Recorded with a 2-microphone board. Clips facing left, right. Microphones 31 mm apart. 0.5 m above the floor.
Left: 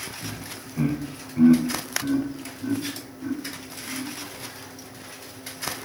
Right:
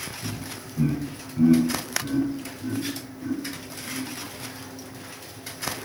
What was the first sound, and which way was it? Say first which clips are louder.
Laughter: right 1 dB; 50° left (ahead or behind).